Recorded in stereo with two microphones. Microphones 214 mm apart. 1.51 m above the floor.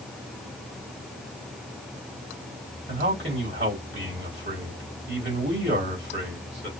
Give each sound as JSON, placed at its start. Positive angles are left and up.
{"t": 2.9, "sound": "a man speaking", "side_deg": -55, "distance_m": 3.5}